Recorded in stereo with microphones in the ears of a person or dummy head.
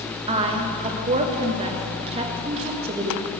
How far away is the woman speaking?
About 1.1 m.